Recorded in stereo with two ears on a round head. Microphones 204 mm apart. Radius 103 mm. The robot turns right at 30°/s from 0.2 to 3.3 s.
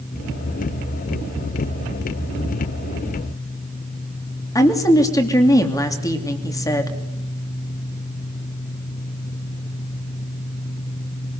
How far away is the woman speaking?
About 3 m.